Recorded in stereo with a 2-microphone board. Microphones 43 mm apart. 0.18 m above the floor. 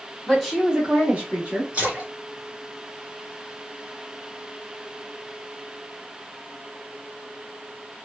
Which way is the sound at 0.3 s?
5° left (ahead or behind).